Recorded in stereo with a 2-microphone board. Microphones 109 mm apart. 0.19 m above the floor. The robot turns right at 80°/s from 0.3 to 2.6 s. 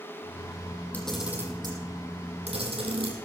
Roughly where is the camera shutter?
Centre.